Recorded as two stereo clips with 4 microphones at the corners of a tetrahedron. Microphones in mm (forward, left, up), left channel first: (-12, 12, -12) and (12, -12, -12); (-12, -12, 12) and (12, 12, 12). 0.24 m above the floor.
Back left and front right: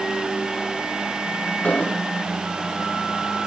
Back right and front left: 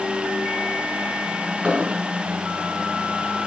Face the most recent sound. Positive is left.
turn(degrees=100)